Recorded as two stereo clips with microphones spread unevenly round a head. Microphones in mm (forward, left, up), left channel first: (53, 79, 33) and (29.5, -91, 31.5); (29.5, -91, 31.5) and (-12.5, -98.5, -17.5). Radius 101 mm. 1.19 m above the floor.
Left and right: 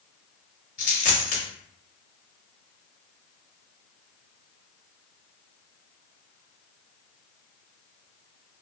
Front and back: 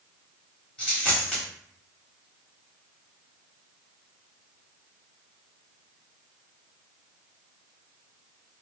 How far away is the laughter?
I don't hear laughter.